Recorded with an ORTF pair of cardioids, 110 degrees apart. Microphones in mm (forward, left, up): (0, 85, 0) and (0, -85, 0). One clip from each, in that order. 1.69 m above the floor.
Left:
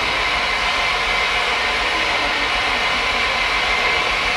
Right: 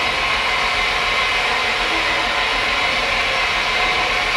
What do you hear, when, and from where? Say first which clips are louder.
0.0 s an engine running: even; 40° right, 0.9 m